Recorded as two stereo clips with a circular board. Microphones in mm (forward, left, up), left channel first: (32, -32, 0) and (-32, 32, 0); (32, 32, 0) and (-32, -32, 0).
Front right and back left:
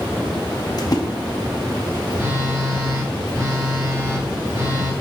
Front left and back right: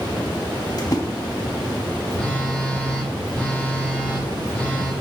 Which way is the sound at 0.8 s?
Straight ahead.